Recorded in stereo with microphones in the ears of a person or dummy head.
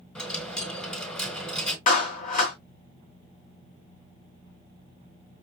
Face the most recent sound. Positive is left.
turn(degrees=45)  # may be behind; listen again after turning